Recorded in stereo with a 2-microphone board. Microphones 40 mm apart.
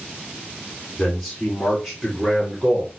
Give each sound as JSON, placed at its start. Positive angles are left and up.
{"t": 1.0, "sound": "a man speaking", "side_deg": 5, "distance_m": 1.9}